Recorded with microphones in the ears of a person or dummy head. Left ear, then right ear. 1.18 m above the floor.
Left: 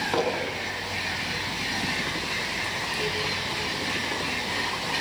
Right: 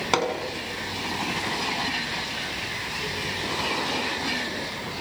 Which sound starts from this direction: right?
Hammering, at 0.1 s.